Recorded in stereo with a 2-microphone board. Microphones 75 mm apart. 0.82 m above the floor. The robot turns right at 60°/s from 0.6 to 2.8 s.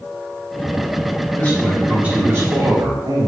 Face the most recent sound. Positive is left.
turn(degrees=-120)